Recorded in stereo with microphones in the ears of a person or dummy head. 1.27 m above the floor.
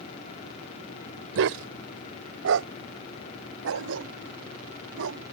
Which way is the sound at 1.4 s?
70° right (ahead or behind).